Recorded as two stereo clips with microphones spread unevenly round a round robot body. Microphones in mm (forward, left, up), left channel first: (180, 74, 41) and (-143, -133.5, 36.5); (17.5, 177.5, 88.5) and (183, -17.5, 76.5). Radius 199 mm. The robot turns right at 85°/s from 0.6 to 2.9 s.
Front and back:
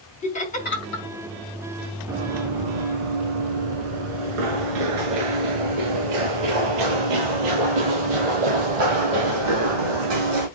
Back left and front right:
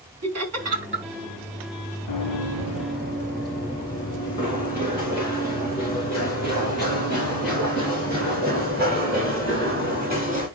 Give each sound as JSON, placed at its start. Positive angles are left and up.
{"t": 0.2, "sound": "laughter", "azimuth_deg": -40, "distance_m": 3.5}
{"t": 2.1, "sound": "running footsteps", "azimuth_deg": 125, "distance_m": 2.5}